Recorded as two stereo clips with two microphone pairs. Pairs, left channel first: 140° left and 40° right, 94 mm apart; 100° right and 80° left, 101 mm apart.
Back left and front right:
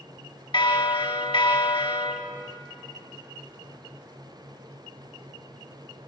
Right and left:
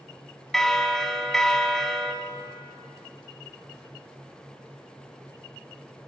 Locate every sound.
0.5 s a bell: 175° left, 0.8 m